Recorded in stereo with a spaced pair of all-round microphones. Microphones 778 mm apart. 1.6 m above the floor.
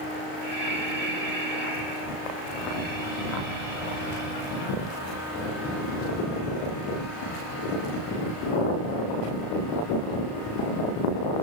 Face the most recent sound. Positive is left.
turn(degrees=-80)